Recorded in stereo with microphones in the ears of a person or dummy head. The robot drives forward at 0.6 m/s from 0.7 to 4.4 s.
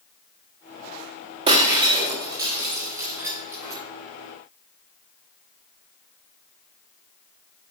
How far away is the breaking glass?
About 1.1 m.